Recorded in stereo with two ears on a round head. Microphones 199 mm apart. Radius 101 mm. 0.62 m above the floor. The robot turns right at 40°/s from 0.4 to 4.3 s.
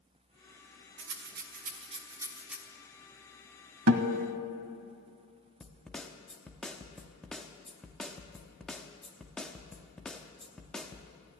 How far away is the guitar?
About 0.9 m.